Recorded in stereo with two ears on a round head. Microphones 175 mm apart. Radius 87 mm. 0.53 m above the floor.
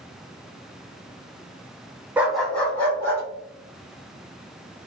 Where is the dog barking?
10° right (ahead or behind), 0.5 m; by 3.2 s 15° left (ahead or behind), 1.5 m.